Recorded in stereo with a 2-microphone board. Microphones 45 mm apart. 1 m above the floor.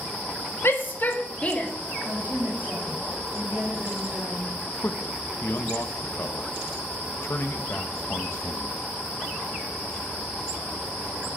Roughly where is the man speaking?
Left.